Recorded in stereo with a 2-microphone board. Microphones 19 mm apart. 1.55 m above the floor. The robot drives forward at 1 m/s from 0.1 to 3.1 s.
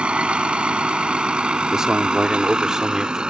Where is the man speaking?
40° right (ahead or behind); by 3.2 s 35° right (ahead or behind).